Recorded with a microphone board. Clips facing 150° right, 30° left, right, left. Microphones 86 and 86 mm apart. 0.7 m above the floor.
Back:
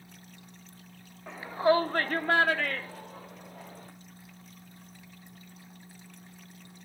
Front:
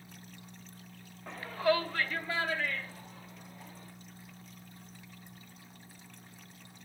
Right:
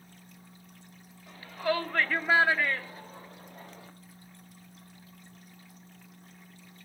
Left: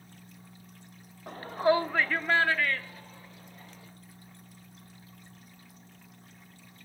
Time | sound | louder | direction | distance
1.3 | a shout | back 5 dB, left 5 dB | 125° left | 1.1 m